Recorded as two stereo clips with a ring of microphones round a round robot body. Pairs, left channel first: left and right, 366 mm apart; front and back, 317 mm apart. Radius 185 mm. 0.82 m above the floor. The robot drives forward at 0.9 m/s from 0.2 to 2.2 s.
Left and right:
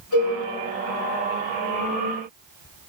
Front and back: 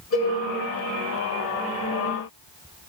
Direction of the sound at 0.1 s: 45° left.